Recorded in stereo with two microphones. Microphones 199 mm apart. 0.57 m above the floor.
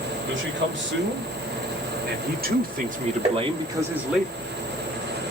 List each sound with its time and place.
0.2 s a man speaking: 70° right (ahead or behind), 2.5 m; by 4.2 s centre (ahead or behind), 0.9 m
3.2 s tapping: 35° right (ahead or behind), 1.1 m